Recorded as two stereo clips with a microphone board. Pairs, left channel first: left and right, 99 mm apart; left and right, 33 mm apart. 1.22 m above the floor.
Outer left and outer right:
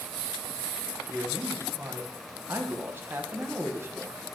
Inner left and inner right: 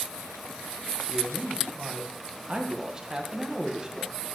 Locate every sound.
1.1 s a man speaking: 20° right (ahead or behind), 1.1 m